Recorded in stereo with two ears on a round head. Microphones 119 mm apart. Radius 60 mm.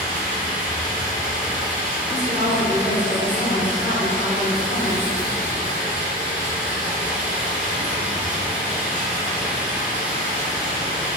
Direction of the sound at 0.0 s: 15° right (ahead or behind).